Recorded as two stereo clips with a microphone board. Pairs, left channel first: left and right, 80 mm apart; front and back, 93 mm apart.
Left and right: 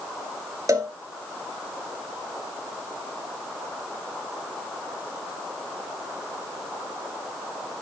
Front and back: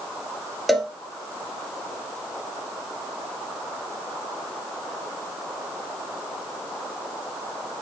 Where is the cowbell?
90° right, 1.2 m.